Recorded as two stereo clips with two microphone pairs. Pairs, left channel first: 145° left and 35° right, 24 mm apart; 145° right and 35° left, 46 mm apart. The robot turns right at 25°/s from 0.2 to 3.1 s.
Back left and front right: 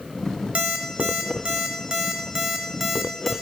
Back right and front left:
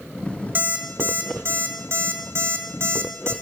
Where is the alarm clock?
5° right, 1.5 m; by 3.3 s 60° left, 1.5 m.